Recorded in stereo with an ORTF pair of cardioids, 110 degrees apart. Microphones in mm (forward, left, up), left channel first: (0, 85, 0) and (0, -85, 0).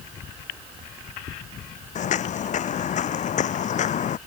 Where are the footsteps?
50° left.